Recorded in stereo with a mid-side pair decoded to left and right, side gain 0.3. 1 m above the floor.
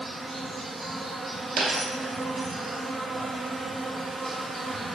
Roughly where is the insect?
Ahead right.